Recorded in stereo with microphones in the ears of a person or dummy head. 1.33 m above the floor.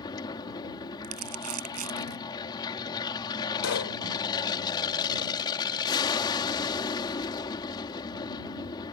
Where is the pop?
85° left.